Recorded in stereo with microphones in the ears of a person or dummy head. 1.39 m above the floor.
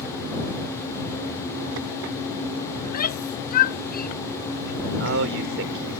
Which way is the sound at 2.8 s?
45° left (ahead or behind).